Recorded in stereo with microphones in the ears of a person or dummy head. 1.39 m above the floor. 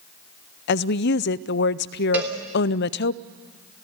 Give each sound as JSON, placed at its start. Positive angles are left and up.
{"t": 0.7, "sound": "a woman speaking", "side_deg": 55, "distance_m": 0.5}
{"t": 2.1, "sound": "a cowbell", "side_deg": -15, "distance_m": 3.5}